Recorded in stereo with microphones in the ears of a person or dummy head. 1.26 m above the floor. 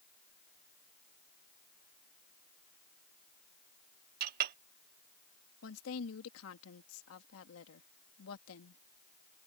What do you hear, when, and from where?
4.2 s a clink: 55° right (ahead or behind)
5.6 s a woman speaking: 80° left